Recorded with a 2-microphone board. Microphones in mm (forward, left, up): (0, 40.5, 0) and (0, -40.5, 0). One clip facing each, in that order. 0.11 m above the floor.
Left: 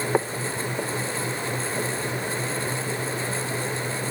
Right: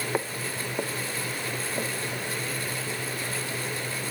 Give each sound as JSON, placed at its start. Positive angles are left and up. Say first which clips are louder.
{"t": 0.1, "sound": "footsteps", "louder": "left 6 dB", "side_deg": 20, "distance_m": 0.7}